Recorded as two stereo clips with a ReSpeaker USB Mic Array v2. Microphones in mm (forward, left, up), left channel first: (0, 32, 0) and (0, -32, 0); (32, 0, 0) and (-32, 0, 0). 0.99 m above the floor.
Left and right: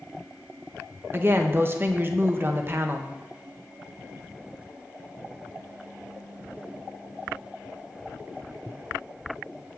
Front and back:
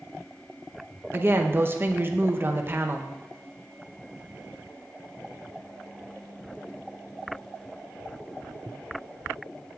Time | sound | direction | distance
1.1 | a woman speaking | 135° right | 0.6 m